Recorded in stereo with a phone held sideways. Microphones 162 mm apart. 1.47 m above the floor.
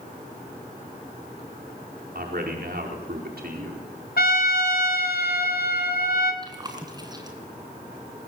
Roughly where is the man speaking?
Right.